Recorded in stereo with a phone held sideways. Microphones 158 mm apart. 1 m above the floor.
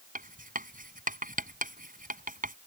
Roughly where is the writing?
Right.